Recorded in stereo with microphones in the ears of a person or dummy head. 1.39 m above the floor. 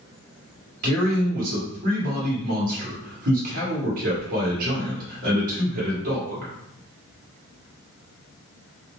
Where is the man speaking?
50° right (ahead or behind), 1.3 m.